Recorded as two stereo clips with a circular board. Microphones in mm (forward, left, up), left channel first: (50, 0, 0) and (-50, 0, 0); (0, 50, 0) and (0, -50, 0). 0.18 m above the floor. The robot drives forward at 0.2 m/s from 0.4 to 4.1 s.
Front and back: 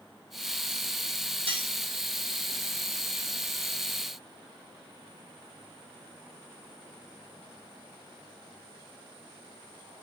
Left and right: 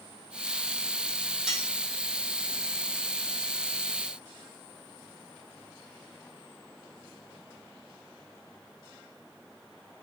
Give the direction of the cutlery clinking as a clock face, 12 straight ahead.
6 o'clock.